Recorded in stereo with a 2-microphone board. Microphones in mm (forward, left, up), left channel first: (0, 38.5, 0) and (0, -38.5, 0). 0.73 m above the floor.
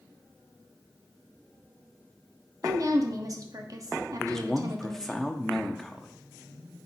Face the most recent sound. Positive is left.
turn(degrees=5)  # may be behind; listen again after turning